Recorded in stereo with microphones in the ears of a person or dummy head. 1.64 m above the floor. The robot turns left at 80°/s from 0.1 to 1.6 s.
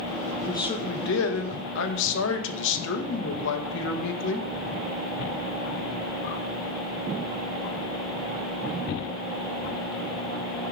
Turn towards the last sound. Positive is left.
turn(degrees=80)